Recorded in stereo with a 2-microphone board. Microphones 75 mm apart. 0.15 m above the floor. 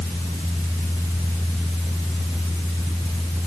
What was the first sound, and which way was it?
Only background noise.